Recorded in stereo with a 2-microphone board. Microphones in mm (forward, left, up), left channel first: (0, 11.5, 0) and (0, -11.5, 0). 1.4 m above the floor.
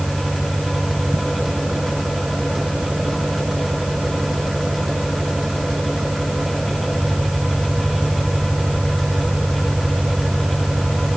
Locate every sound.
0.0 s an engine running: 20° right (ahead or behind)